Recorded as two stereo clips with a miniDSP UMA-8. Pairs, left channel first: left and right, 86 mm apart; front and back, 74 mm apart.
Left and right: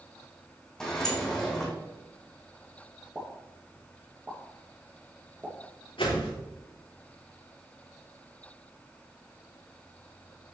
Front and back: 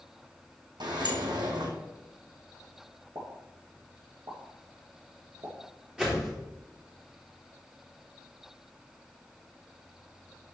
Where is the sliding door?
175° left, 1.9 m.